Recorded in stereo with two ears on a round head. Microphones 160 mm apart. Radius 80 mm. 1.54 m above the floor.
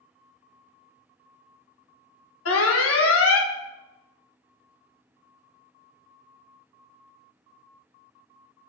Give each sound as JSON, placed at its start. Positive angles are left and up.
{"t": 2.5, "sound": "an alarm", "side_deg": 85, "distance_m": 1.7}